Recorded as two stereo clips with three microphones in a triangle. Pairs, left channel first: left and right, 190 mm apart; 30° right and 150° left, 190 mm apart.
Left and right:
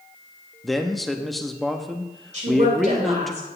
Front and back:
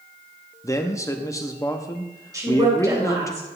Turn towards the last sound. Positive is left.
turn(degrees=-140)